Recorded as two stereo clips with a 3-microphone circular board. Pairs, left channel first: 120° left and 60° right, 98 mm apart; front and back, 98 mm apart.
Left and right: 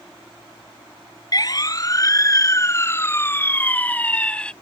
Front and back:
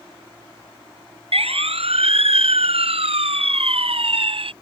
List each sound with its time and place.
1.3 s a siren: 170° left; by 4.5 s 160° right